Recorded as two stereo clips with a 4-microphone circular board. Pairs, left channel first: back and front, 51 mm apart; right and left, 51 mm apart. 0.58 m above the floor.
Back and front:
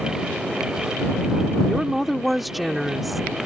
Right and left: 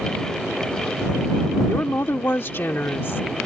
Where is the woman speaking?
90° right.